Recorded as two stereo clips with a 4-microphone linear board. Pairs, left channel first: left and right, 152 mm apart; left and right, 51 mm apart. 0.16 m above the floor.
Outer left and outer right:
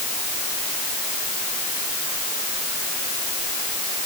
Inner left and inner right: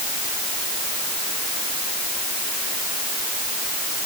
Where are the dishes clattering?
I don't hear dishes clattering.